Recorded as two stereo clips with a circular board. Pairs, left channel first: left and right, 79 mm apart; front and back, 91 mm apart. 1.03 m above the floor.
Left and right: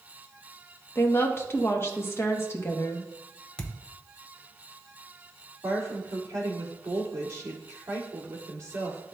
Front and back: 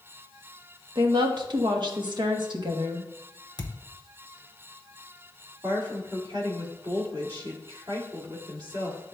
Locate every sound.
0.9 s a woman speaking: 145° left, 1.0 m
3.6 s a thud: 10° left, 0.8 m
5.6 s a woman speaking: 140° right, 2 m